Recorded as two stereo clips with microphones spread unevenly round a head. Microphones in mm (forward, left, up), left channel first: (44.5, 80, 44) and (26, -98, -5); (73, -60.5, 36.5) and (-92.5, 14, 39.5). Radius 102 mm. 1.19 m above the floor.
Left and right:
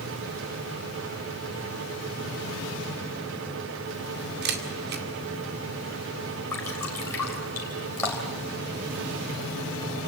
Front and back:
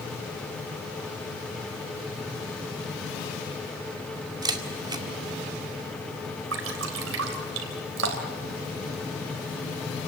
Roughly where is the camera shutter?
Behind right.